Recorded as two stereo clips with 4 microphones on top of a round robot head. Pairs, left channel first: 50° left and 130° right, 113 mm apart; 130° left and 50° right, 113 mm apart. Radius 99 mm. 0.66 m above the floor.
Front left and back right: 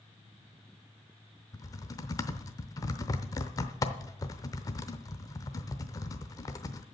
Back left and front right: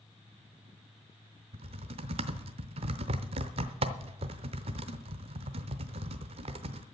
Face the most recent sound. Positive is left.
turn(degrees=-10)